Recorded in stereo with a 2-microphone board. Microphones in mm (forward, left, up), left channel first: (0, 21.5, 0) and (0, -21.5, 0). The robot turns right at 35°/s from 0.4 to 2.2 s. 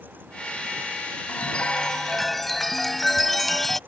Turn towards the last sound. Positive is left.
turn(degrees=175)